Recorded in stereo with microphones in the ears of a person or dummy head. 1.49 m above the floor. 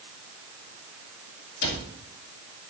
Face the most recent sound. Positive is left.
turn(degrees=65)  # may be behind; listen again after turning